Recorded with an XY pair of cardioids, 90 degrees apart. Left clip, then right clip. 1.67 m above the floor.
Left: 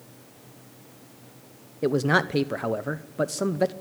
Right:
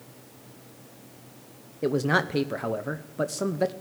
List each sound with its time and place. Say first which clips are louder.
1.8 s a man speaking: left 2 dB; 20° left, 0.8 m